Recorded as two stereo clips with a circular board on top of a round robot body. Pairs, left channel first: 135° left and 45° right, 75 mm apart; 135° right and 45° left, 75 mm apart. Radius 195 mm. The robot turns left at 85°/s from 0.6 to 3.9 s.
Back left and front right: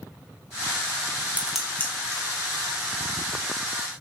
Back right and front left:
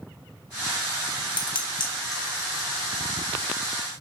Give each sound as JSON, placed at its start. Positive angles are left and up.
{"t": 1.4, "sound": "dishes clattering", "azimuth_deg": -115, "distance_m": 1.3}